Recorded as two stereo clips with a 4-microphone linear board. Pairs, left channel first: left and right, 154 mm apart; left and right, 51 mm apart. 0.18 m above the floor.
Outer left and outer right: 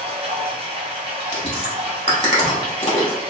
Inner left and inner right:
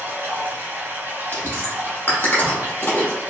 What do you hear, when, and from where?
0.0 s running water: 40° right (ahead or behind), 0.9 m
1.3 s chewing: 40° left (ahead or behind), 1.0 m